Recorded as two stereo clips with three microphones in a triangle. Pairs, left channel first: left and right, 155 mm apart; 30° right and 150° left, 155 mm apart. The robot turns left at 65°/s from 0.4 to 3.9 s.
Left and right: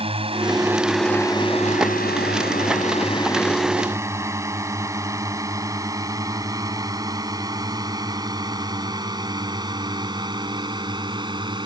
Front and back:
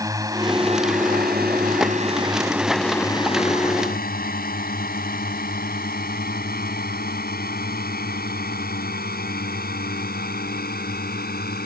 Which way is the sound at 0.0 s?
140° right.